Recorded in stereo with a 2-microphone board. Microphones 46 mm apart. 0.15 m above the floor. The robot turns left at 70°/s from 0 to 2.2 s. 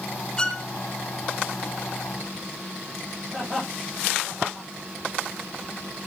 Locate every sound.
0.4 s a violin: 15° left (ahead or behind), 0.9 m; by 0.7 s 10° left (ahead or behind), 0.9 m
3.3 s laughter: 5° right (ahead or behind), 8.5 m